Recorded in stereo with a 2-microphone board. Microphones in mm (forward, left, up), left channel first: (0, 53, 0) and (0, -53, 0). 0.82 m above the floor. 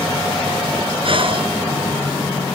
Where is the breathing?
55° right (ahead or behind).